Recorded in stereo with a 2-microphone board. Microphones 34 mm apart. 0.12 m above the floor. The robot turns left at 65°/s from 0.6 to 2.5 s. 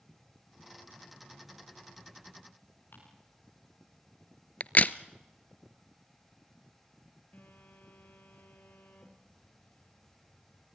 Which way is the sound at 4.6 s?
45° left (ahead or behind).